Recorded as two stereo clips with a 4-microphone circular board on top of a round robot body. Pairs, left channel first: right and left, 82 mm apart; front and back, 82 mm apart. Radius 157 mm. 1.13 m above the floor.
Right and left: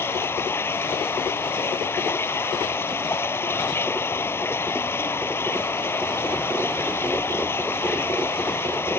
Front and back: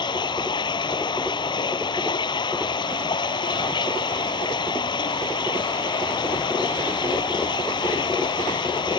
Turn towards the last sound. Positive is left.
turn(degrees=-30)